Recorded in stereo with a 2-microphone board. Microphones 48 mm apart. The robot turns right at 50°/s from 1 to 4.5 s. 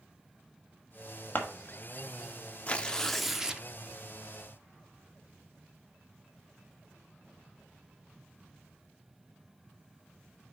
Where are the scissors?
40° left (ahead or behind), 1.4 m; by 1.4 s 35° left (ahead or behind), 1.4 m.